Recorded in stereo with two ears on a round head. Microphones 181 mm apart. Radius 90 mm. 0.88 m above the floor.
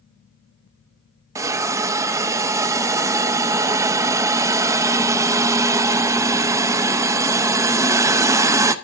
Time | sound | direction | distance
1.4 | a hiss | 15° right (ahead or behind) | 0.6 m